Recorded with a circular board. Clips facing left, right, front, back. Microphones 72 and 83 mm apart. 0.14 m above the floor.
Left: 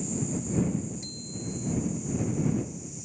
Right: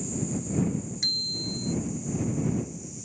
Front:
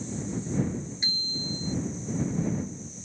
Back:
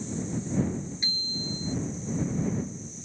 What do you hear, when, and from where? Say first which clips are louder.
1.0 s a bicycle bell: right 1 dB, even; 70° right